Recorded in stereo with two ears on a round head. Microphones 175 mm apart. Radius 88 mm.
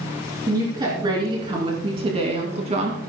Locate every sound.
0.5 s a woman speaking: 20° right (ahead or behind), 4 m; by 3.0 s 40° right (ahead or behind), 2.5 m